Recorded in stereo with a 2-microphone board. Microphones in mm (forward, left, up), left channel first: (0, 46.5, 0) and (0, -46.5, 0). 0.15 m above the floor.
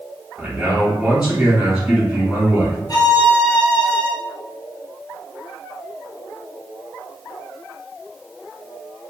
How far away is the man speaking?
About 1.7 m.